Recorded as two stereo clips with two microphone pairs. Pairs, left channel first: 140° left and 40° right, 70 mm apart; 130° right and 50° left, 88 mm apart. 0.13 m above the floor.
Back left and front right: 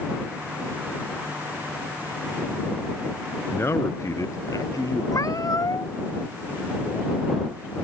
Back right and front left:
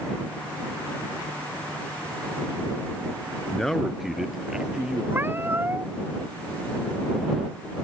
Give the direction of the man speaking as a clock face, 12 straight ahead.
7 o'clock.